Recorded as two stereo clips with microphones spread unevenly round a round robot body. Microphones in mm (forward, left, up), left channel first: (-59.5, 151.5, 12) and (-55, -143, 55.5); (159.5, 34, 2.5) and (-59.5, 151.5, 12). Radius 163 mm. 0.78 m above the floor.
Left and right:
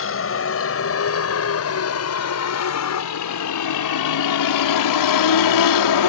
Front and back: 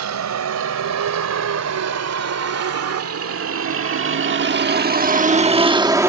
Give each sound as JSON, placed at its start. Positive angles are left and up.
{"t": 0.0, "sound": "a vehicle", "azimuth_deg": 140}